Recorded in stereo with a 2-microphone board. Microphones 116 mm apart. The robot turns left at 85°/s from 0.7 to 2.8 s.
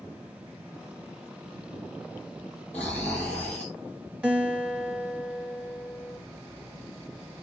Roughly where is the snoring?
Left.